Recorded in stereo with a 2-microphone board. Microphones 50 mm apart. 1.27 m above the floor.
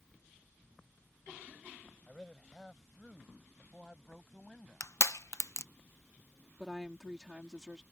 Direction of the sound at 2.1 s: 10° left (ahead or behind).